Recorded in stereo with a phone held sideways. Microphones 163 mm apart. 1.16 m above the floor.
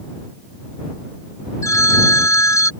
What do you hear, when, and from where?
1.6 s a phone ringing: 20° left (ahead or behind)